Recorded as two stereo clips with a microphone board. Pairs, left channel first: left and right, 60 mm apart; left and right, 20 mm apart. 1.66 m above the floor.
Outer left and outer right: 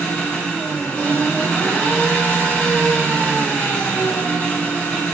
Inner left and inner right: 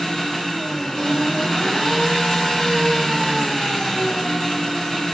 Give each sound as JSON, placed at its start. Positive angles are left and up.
{"t": 0.0, "sound": "an engine running", "side_deg": 30, "distance_m": 1.8}